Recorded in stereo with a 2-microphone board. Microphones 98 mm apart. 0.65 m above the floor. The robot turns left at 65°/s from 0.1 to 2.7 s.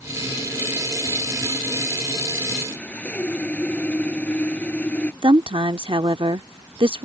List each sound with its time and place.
2.6 s sawing: 20° left (ahead or behind); by 5.1 s 15° left (ahead or behind)
5.2 s a woman speaking: 60° right (ahead or behind)